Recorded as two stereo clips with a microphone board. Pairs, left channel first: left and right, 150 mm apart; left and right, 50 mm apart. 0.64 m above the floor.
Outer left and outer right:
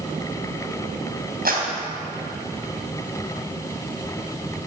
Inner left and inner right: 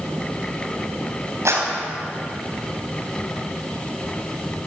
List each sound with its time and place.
1.4 s a clap: 80° right, 4 m